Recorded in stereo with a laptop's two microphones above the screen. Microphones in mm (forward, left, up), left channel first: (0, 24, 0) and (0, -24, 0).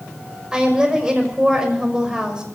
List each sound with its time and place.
0.5 s a woman speaking: 10° right (ahead or behind), 6 m